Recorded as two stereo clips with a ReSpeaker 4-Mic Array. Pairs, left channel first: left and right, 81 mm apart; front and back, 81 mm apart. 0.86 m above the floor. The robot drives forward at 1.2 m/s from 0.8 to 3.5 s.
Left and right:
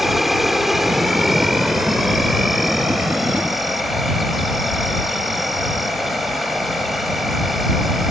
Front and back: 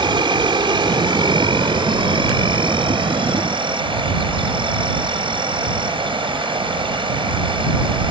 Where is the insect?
Straight behind.